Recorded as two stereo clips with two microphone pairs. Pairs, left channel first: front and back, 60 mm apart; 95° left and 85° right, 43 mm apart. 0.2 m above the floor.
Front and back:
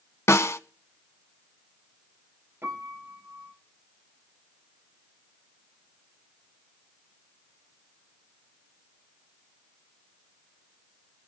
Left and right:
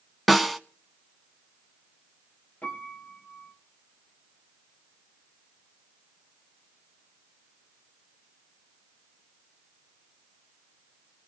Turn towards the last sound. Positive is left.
turn(degrees=135)